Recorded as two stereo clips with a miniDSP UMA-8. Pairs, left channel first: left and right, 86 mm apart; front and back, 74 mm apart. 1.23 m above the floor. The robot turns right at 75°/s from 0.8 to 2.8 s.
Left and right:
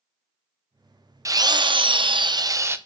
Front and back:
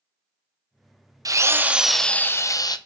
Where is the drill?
140° right, 0.6 m; by 2.8 s 25° right, 0.6 m.